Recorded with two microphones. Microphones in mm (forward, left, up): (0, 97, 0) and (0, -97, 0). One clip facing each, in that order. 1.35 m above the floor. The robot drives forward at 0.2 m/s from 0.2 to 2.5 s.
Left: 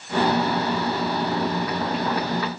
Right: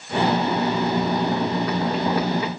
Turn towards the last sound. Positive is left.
No sound to turn to.